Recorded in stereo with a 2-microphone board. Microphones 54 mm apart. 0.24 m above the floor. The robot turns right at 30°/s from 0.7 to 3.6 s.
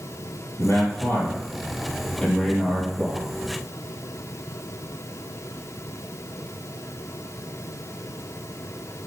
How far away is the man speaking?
About 6 m.